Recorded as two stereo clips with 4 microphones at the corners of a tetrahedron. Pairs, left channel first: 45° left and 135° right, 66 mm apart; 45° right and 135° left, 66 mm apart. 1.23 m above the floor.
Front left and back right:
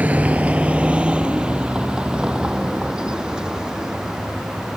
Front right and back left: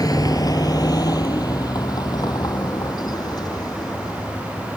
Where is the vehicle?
70° right; by 4.8 s 55° right.